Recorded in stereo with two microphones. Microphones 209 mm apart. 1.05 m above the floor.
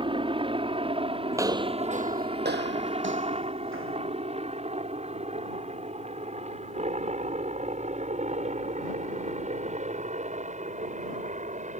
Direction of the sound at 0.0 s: 25° right (ahead or behind).